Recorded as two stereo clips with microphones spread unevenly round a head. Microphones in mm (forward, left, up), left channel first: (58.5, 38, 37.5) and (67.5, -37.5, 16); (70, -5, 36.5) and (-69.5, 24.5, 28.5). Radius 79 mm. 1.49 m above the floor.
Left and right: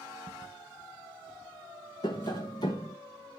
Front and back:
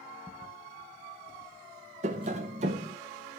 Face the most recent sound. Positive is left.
turn(degrees=130)